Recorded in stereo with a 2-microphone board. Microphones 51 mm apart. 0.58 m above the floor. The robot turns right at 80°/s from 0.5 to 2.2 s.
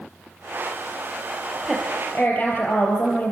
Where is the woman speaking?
15° right, 3.5 m; by 3.3 s 30° left, 3.5 m.